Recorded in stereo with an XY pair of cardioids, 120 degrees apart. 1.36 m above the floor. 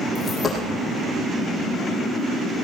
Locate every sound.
0.1 s a dropped coin: 30° left, 4.5 m